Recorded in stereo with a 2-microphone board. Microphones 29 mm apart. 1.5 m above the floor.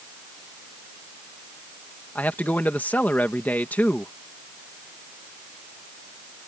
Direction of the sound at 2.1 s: 90° left.